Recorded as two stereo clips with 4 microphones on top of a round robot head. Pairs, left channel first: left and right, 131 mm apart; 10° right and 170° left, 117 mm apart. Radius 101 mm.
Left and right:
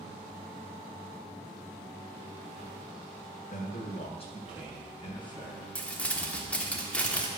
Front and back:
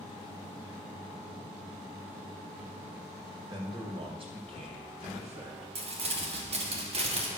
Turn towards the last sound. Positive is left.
turn(degrees=170)